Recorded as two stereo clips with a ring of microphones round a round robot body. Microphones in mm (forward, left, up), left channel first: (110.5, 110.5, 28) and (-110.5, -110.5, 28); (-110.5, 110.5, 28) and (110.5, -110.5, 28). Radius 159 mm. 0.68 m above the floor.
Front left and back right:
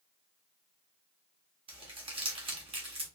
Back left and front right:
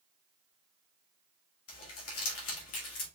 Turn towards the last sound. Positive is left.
turn(degrees=160)